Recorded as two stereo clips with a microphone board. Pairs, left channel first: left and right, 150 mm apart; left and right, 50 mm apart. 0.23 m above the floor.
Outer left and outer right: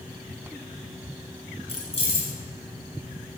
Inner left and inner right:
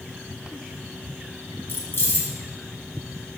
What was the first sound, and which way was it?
Keys jangling, 45° left (ahead or behind).